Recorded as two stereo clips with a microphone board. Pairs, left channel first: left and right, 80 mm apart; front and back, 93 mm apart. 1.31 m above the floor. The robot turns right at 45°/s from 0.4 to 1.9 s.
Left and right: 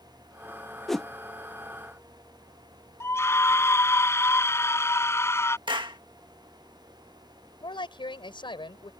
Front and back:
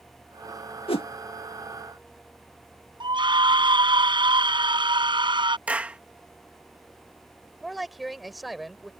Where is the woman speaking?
90° left.